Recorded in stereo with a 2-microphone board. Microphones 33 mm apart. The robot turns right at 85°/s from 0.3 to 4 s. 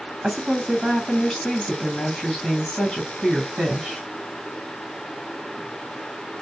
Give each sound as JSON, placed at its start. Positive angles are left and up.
{"t": 0.2, "sound": "a woman speaking", "azimuth_deg": -45, "distance_m": 1.6}